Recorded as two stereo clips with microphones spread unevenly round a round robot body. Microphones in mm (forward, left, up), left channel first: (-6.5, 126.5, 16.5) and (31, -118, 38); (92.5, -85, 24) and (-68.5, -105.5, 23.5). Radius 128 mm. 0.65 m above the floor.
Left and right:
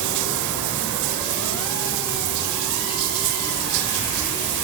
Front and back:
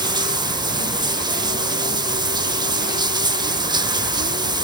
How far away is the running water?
About 1.2 m.